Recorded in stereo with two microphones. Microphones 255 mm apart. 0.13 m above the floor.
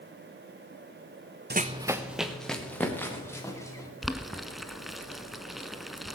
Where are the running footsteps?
40° right (ahead or behind), 0.6 m; by 3.9 s 10° left (ahead or behind), 4 m.